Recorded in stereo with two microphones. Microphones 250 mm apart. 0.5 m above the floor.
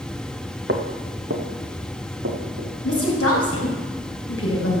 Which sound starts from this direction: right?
Footsteps, at 0.7 s.